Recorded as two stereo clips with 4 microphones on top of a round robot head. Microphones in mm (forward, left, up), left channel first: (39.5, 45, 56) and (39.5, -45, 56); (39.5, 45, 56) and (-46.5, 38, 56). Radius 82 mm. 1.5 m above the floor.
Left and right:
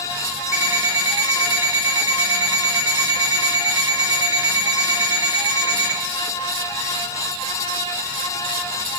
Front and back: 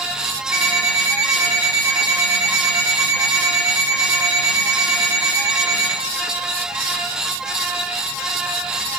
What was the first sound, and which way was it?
An alarm clock, 125° right.